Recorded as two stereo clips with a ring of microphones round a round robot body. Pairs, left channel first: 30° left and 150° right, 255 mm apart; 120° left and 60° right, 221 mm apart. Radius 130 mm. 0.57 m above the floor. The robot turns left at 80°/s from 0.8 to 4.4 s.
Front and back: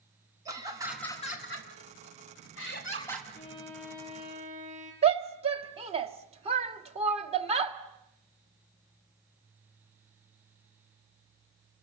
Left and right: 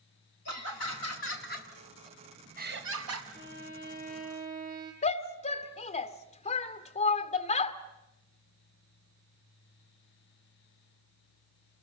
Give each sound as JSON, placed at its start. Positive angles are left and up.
{"t": 0.5, "sound": "laughter", "azimuth_deg": 135, "distance_m": 4.0}
{"t": 3.3, "sound": "a violin", "azimuth_deg": -20, "distance_m": 5.5}
{"t": 5.0, "sound": "a shout", "azimuth_deg": 160, "distance_m": 1.3}